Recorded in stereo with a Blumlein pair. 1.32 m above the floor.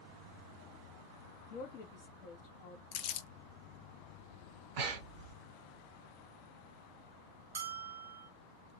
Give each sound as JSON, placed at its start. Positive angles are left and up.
{"t": 1.5, "sound": "a woman speaking", "azimuth_deg": 45, "distance_m": 0.7}
{"t": 2.9, "sound": "crumpling", "azimuth_deg": 40, "distance_m": 0.6}
{"t": 4.8, "sound": "breathing", "azimuth_deg": -45, "distance_m": 1.1}
{"t": 7.5, "sound": "a bell", "azimuth_deg": -65, "distance_m": 0.5}